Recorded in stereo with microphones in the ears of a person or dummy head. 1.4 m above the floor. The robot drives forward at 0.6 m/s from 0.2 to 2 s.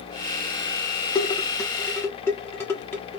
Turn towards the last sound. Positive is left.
turn(degrees=15)  # may be behind; listen again after turning